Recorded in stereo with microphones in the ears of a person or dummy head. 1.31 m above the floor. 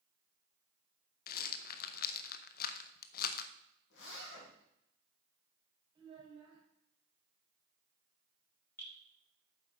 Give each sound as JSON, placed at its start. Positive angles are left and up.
{"t": 1.3, "sound": "a rattle", "side_deg": 55, "distance_m": 0.7}
{"t": 3.9, "sound": "a zipper", "side_deg": 75, "distance_m": 3.5}
{"t": 6.0, "sound": "a child speaking", "side_deg": -25, "distance_m": 4.0}
{"t": 8.8, "sound": "dripping", "side_deg": 5, "distance_m": 4.5}